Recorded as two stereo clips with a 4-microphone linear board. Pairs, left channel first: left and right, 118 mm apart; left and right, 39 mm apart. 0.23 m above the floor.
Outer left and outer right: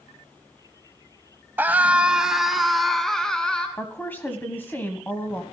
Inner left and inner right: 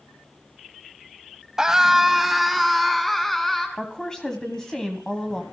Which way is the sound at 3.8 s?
15° left (ahead or behind).